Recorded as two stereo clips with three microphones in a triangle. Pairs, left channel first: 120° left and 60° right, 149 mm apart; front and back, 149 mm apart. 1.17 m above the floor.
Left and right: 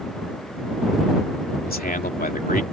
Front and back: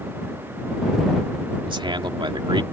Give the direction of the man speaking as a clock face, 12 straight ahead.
8 o'clock.